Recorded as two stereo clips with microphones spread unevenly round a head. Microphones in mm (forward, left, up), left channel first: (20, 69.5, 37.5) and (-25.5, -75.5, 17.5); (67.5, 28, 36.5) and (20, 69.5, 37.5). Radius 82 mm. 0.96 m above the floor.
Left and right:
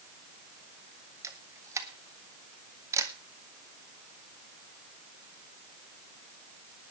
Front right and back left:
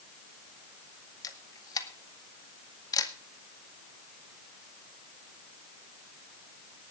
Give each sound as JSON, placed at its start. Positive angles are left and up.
{"t": 1.2, "sound": "a camera shutter", "azimuth_deg": -40, "distance_m": 1.9}